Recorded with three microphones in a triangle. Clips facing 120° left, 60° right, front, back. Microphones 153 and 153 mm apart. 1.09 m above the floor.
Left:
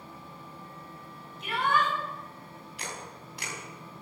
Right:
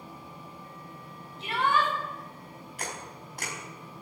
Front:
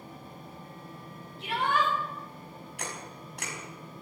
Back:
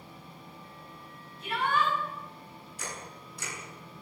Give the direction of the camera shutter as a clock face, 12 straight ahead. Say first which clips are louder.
Right 2 dB, front 1 dB; 1 o'clock.